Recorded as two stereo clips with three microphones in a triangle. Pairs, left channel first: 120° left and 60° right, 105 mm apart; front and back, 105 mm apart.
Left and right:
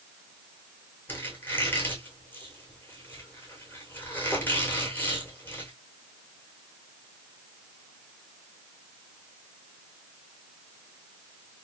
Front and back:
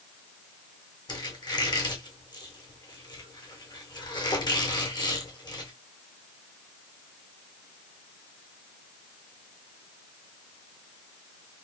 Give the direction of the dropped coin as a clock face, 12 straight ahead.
No dropped coin in this recording.